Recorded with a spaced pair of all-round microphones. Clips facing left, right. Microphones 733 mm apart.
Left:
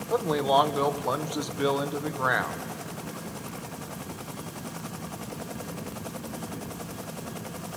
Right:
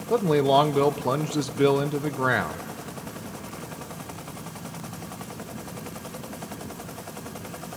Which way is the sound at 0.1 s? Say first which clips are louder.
Right 5 dB; 60° right (ahead or behind).